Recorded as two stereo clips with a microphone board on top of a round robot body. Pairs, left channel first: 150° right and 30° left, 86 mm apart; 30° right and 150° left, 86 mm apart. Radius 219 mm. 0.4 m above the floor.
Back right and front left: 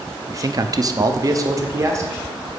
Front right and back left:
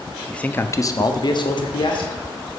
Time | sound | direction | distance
0.3 | a man speaking | 45° left | 0.9 m